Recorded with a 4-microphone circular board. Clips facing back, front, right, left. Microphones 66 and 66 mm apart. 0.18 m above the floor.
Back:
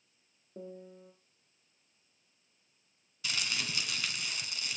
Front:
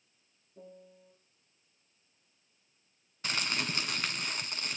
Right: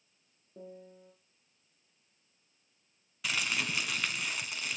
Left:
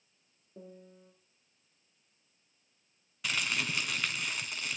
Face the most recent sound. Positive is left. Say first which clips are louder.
# front 3 dB, even
turn(degrees=0)